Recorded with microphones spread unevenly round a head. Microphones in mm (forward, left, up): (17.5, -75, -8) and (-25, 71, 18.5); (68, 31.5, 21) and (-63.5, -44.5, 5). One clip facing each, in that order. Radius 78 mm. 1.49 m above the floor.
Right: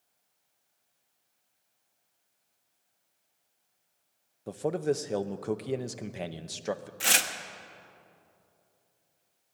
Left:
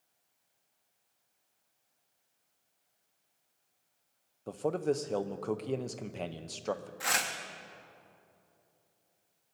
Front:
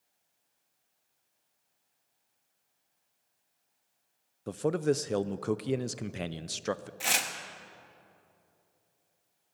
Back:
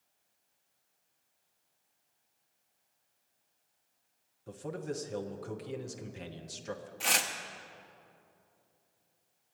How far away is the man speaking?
About 0.5 m.